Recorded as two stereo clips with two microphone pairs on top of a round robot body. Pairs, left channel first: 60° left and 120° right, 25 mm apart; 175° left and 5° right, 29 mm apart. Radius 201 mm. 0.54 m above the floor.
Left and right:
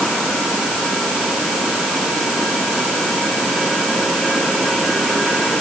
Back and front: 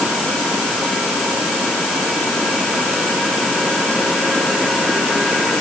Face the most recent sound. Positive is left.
No sound to turn to.